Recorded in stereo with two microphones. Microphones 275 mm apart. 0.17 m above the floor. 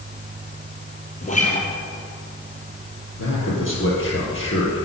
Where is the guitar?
25° left (ahead or behind), 2.5 m.